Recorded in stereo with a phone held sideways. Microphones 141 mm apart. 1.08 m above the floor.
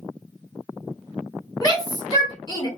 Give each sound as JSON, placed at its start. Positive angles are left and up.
{"t": 1.6, "sound": "a shout", "side_deg": 25, "distance_m": 3.5}